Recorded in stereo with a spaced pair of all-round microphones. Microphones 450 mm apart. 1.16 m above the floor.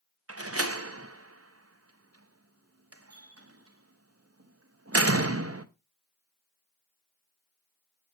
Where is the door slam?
30° right (ahead or behind), 0.7 m.